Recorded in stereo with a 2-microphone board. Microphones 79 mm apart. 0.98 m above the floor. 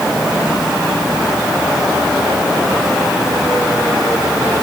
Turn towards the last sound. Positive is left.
No sound to turn to.